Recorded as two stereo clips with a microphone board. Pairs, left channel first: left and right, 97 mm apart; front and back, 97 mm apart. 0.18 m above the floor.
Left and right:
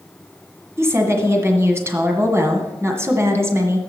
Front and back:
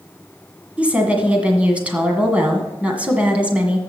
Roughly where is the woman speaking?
Behind right.